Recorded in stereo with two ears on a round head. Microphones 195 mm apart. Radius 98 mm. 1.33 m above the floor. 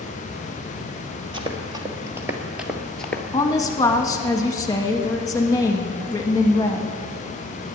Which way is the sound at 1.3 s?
25° right (ahead or behind).